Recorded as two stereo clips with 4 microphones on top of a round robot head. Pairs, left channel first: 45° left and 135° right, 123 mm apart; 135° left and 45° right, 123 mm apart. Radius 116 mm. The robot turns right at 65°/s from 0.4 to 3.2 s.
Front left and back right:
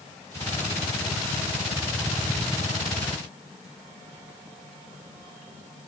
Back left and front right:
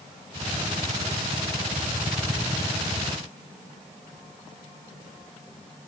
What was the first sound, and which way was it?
Only background noise.